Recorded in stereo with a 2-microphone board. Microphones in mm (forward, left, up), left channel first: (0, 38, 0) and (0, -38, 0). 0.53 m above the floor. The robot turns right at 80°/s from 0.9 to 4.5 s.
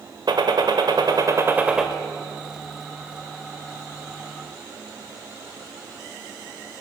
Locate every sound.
0.3 s a gunshot: 80° right, 1.3 m; by 1.9 s 5° right, 1.3 m